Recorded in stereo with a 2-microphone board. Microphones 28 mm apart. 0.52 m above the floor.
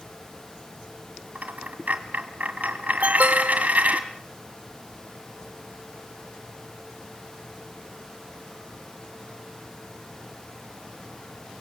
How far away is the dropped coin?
About 1.8 m.